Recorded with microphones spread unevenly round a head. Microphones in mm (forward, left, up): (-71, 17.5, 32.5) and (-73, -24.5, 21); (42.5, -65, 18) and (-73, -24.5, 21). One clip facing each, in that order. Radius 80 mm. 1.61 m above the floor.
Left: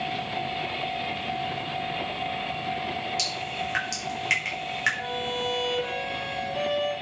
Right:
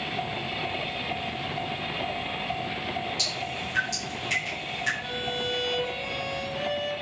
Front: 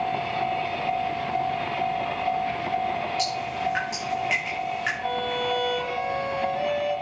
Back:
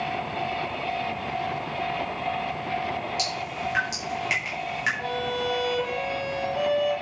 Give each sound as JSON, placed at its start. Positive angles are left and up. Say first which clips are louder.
{"t": 3.2, "sound": "dripping", "louder": "left 1 dB, front 3 dB", "azimuth_deg": 95, "distance_m": 5.0}
{"t": 5.0, "sound": "a violin", "louder": "left 2 dB, front 1 dB", "azimuth_deg": 110, "distance_m": 5.5}